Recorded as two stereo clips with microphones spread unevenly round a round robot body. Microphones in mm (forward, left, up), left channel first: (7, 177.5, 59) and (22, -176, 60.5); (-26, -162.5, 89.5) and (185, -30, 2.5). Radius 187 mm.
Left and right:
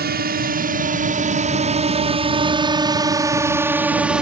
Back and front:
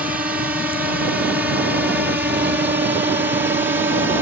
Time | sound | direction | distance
0.0 | a drone | 30° right | ?